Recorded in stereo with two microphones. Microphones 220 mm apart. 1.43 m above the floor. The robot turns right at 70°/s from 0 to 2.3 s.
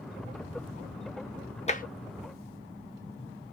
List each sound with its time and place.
1.7 s tapping: 30° left (ahead or behind), 0.8 m; by 1.8 s 40° left (ahead or behind), 0.8 m